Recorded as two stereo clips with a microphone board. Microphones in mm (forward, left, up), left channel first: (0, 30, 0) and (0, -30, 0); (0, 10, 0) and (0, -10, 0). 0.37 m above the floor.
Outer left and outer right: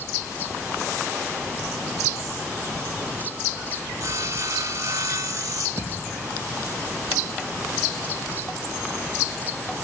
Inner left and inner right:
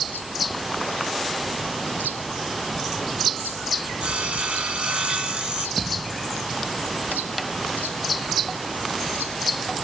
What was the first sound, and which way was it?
Sawing, 65° right (ahead or behind).